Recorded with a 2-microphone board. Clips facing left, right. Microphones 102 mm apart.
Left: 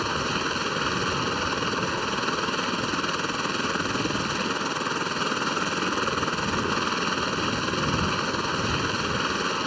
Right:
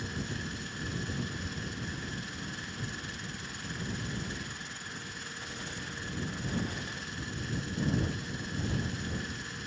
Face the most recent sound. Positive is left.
turn(degrees=65)  # may be behind; listen again after turning